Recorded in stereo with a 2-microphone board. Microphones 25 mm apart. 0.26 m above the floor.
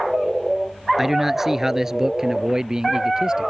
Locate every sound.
1.0 s a man speaking: 5° right (ahead or behind); by 3.5 s 25° right (ahead or behind)